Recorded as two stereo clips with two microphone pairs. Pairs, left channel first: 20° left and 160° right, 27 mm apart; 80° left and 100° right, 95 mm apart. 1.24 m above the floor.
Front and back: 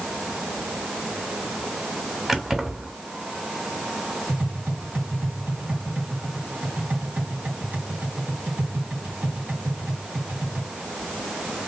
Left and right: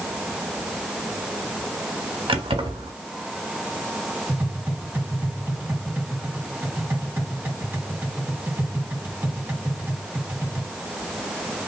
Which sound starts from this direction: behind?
Tapping, at 4.3 s.